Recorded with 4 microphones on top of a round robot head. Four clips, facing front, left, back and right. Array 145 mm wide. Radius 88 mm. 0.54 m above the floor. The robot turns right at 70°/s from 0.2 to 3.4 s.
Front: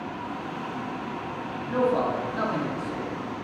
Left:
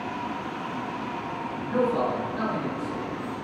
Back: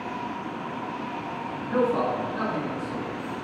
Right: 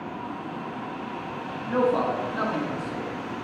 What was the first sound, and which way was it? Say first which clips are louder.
A man speaking: right 2 dB, even; 120° right.